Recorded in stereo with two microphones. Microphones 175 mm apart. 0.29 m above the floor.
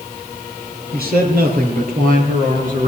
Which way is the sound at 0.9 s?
65° right (ahead or behind).